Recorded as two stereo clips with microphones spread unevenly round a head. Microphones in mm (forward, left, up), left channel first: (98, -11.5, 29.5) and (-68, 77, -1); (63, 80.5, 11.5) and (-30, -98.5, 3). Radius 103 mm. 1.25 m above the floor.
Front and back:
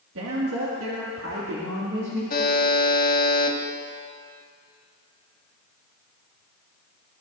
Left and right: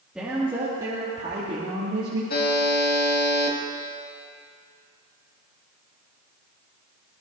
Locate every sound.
0.1 s a woman speaking: 155° left, 2.5 m; by 2.2 s 165° right, 3.5 m
2.3 s a buzzer: 15° left, 2 m